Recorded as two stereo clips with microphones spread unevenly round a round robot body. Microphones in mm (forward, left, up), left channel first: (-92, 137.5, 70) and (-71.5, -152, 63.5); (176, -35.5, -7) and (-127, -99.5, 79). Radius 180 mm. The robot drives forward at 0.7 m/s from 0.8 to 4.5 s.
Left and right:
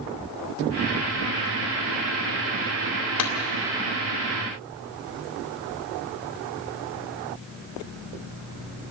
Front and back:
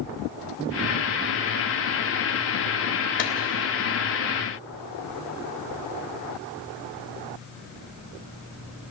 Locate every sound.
3.2 s a clap: 70° left, 2 m